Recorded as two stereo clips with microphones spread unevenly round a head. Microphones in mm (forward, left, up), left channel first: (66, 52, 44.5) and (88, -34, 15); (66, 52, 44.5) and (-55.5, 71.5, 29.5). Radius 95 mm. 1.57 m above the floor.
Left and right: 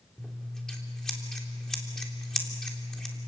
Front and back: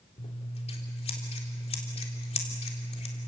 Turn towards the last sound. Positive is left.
turn(degrees=25)